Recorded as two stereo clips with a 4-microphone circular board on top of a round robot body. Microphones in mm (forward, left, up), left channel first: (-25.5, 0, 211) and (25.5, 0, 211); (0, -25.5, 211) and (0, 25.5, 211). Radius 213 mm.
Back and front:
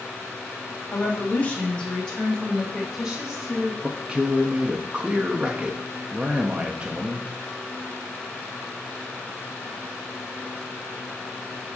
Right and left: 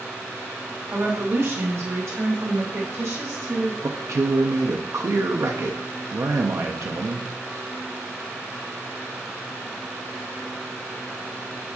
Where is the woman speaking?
145° left, 1.0 m; by 3.7 s 85° left, 3 m.